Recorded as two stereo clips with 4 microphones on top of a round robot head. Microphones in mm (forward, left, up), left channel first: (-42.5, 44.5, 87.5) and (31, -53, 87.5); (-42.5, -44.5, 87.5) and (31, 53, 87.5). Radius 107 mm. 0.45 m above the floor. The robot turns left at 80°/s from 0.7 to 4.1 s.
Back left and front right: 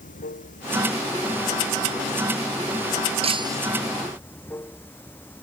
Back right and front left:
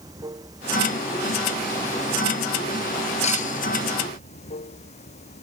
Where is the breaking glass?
90° right; by 3.6 s 125° right.